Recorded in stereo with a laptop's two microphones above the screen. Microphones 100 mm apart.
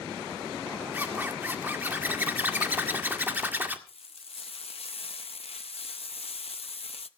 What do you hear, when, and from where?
0.9 s a zipper: 20° right (ahead or behind), 1.8 m
3.9 s frying: 75° left (ahead or behind), 0.6 m